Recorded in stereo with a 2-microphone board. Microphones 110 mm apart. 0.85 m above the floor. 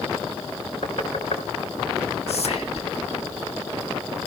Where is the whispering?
70° left (ahead or behind), 1.3 m.